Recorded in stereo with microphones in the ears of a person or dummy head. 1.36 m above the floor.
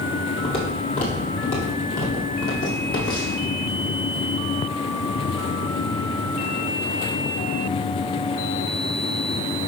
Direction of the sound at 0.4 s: 30° left (ahead or behind).